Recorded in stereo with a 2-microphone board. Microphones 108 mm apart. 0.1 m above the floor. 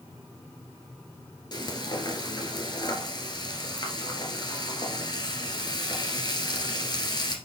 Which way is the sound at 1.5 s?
45° left (ahead or behind).